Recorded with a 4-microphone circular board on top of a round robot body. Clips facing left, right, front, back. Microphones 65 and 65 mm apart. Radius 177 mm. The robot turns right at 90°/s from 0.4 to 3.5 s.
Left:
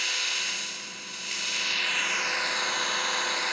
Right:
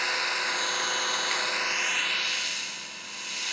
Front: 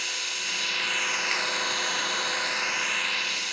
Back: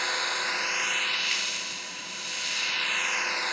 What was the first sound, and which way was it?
An engine running, 140° right.